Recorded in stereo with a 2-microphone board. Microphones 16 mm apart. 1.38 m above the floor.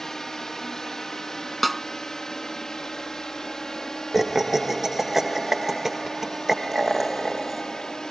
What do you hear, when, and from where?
0.0 s a drone: 30° left (ahead or behind); by 8.1 s 40° left (ahead or behind)
1.6 s a snare drum: 5° left (ahead or behind)
4.1 s laughter: 20° right (ahead or behind)